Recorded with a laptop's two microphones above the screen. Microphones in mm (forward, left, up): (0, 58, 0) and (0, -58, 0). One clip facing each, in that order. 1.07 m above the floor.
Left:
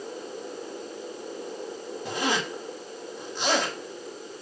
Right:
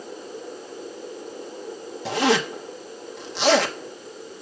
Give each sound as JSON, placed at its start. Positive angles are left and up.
{"t": 2.0, "sound": "a zipper", "side_deg": -80, "distance_m": 0.7}